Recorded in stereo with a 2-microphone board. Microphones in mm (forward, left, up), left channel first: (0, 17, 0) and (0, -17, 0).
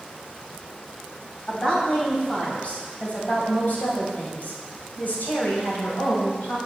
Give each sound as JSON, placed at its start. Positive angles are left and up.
{"t": 1.5, "sound": "a woman speaking", "side_deg": 25, "distance_m": 4.0}